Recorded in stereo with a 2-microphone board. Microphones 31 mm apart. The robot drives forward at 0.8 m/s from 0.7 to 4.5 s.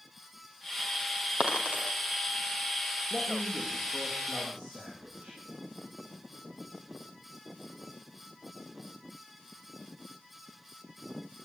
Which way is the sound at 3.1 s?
20° right (ahead or behind).